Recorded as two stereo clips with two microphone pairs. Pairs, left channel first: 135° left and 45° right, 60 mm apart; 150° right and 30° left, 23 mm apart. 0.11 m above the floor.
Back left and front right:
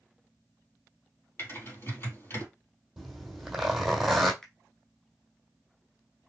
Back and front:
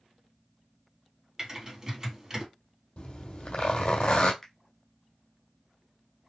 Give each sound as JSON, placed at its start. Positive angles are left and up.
{"t": 1.4, "sound": "typing on a keyboard", "azimuth_deg": 95, "distance_m": 3.0}
{"t": 3.0, "sound": "a zipper", "azimuth_deg": -130, "distance_m": 1.6}
{"t": 4.4, "sound": "a finger snap", "azimuth_deg": -160, "distance_m": 1.0}